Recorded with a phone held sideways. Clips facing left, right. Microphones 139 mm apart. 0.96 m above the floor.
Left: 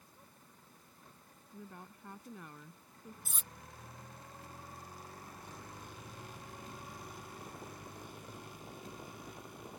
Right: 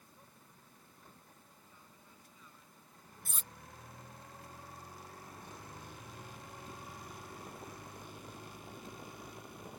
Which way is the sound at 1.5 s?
70° left (ahead or behind).